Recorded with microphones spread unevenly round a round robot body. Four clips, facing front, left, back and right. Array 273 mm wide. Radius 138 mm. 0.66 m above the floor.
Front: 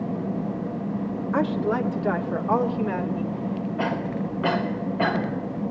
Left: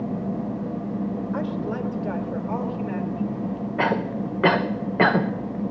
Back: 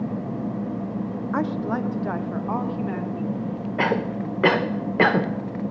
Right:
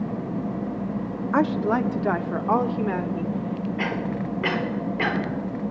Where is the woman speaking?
70° right, 1.4 m.